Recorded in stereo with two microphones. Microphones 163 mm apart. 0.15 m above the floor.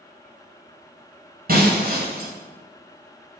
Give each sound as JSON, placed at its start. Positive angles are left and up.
{"t": 1.5, "sound": "breaking glass", "side_deg": -65, "distance_m": 3.5}